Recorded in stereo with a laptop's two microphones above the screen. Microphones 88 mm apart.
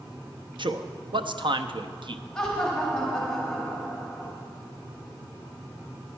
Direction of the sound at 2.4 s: 5° left (ahead or behind).